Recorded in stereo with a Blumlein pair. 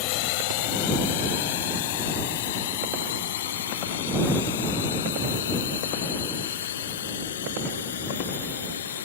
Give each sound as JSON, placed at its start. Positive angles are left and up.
{"t": 0.0, "sound": "a drone", "azimuth_deg": 45}